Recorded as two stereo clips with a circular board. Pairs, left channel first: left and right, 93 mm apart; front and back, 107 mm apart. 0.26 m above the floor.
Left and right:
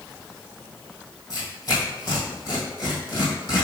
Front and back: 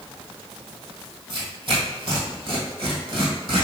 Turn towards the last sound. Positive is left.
turn(degrees=140)